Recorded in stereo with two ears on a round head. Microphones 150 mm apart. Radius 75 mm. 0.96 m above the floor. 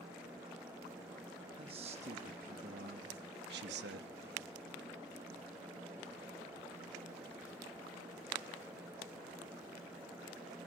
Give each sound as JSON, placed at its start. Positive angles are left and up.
{"t": 1.6, "sound": "a man speaking", "side_deg": -35, "distance_m": 1.4}